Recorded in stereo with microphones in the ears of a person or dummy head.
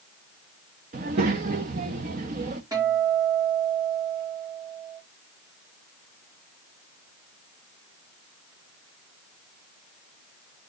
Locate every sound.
0.9 s a child speaking: 30° right (ahead or behind), 0.8 m
2.7 s a guitar: 20° right (ahead or behind), 4 m